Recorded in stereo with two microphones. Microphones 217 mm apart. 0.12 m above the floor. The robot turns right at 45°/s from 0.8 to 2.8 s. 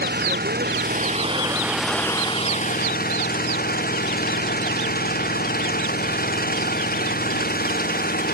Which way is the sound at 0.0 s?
45° right.